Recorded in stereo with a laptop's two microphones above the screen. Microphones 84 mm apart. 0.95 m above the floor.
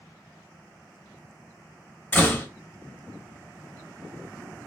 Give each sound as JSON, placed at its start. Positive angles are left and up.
{"t": 2.1, "sound": "a door slam", "side_deg": 20, "distance_m": 1.1}